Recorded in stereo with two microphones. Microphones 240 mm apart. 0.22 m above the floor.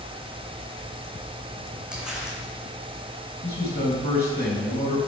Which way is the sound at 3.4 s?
40° left (ahead or behind).